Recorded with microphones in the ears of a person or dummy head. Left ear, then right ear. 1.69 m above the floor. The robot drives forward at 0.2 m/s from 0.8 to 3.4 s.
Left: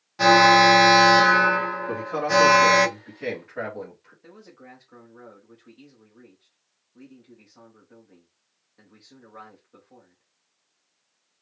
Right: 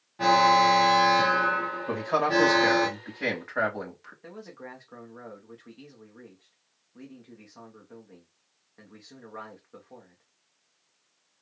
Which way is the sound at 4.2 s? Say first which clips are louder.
Right 4 dB; 25° right (ahead or behind).